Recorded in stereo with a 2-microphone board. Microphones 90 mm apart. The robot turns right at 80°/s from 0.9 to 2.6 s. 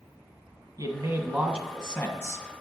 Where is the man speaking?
65° right, 1.5 m; by 2.5 s 60° left, 1.5 m.